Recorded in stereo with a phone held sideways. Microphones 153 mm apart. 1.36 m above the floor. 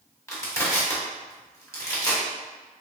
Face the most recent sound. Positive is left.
turn(degrees=20)  # may be behind; listen again after turning